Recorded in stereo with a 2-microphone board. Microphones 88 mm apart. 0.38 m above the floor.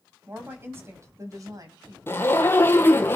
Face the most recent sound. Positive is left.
turn(degrees=25)  # may be behind; listen again after turning